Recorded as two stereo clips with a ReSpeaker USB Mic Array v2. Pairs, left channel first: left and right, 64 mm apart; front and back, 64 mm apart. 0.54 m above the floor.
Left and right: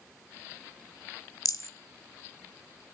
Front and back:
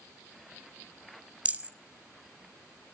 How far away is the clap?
I don't hear a clap.